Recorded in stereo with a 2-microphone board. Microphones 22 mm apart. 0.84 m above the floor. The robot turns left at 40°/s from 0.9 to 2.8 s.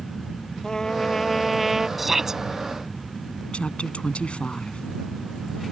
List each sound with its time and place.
0.6 s a trumpet: 25° left; by 1.9 s 10° right
2.0 s a shout: 5° right (ahead or behind); by 2.4 s 20° right (ahead or behind)
3.5 s a woman speaking: 55° left (ahead or behind)